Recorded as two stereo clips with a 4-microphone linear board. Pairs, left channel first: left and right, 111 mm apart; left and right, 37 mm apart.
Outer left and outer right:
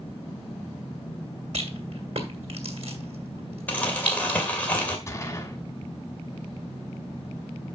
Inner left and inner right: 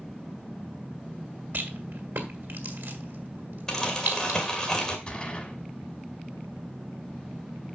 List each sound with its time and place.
1.5 s a rattle: 70° right (ahead or behind), 2 m
3.7 s crumpling: 15° left (ahead or behind), 2.0 m
5.1 s a gunshot: 25° left (ahead or behind), 1.4 m